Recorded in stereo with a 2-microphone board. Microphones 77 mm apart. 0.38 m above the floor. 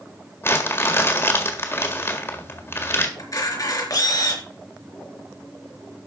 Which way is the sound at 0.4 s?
30° left (ahead or behind).